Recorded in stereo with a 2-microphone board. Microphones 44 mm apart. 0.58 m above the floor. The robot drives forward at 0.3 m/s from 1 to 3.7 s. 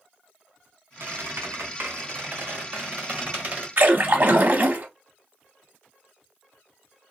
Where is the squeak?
65° right (ahead or behind), 0.9 m; by 3.7 s 35° right (ahead or behind), 1.4 m.